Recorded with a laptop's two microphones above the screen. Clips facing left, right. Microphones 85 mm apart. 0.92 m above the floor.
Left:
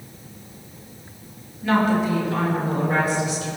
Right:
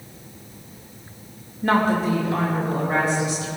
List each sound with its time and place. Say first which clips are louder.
1.6 s a woman speaking: even; 40° right (ahead or behind), 1.1 m; by 3.5 s 30° right (ahead or behind), 3.5 m